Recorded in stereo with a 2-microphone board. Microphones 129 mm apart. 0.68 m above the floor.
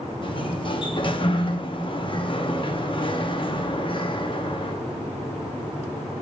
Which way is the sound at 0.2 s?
40° left (ahead or behind).